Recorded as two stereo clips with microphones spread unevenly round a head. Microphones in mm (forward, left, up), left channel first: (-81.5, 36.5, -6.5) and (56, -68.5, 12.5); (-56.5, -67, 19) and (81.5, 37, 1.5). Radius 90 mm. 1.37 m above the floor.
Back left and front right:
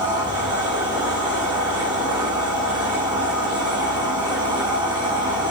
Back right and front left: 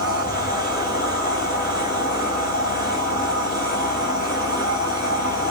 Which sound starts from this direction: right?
A machine running, at 0.0 s.